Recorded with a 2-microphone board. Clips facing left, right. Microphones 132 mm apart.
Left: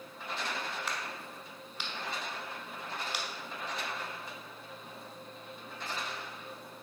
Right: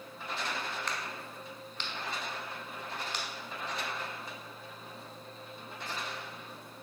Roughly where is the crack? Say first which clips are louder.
Even; centre.